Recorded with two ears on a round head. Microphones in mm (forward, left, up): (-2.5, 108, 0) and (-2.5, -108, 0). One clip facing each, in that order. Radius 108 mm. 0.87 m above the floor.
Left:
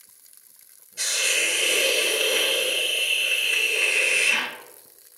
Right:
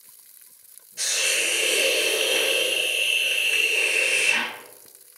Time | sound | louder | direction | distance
1.0 | a hiss | even | centre (ahead or behind) | 1.7 m